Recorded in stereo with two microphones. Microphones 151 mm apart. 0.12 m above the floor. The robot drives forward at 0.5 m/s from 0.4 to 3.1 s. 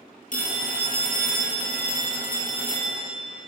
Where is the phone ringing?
65° left (ahead or behind), 2 m; by 3.0 s 50° left (ahead or behind), 2.5 m.